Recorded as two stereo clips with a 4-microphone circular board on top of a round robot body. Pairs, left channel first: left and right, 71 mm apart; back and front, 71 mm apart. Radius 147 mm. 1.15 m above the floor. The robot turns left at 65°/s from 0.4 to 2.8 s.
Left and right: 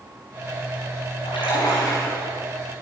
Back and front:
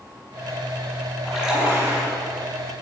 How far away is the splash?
About 6 m.